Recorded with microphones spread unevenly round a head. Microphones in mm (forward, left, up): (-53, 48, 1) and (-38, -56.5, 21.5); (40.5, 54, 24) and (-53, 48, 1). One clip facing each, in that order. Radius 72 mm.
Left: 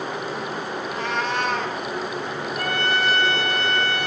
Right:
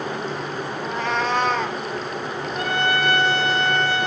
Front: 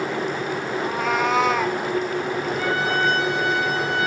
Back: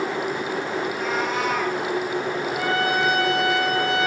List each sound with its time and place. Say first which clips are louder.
0.8 s a cat meowing: right 3 dB, front 5 dB; 55° right, 1.1 m; by 1.8 s 40° right, 1.7 m
2.5 s a trumpet: right 2 dB, back 1 dB; 155° right, 5 m